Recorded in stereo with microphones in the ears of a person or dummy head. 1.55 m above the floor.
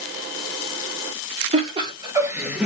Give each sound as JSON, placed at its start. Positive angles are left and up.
{"t": 1.5, "sound": "laughter", "side_deg": -35, "distance_m": 1.1}